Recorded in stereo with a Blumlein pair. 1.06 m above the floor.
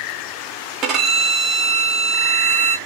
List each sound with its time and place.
0.8 s a violin: 30° right, 0.9 m